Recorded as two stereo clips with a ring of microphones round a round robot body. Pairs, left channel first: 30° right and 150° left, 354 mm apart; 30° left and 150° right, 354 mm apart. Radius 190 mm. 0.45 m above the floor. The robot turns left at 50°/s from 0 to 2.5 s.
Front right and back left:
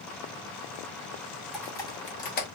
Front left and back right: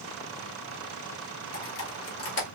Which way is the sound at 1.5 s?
60° left.